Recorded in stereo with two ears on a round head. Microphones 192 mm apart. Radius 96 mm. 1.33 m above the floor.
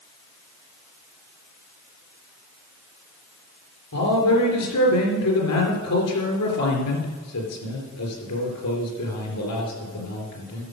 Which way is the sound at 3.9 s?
90° left.